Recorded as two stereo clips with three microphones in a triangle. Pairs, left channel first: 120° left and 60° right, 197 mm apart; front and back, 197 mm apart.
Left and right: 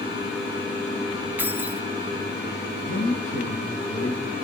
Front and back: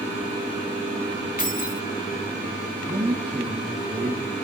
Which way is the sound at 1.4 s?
15° left.